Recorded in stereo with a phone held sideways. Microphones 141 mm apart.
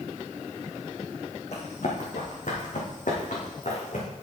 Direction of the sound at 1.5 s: 60° left (ahead or behind).